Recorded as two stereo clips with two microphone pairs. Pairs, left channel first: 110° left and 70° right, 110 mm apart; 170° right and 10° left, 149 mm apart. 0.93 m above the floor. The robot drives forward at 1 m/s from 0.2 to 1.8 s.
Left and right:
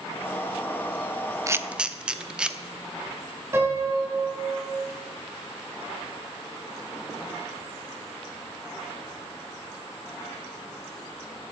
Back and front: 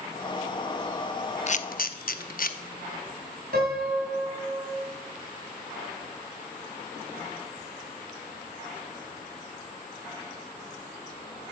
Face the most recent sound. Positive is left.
turn(degrees=0)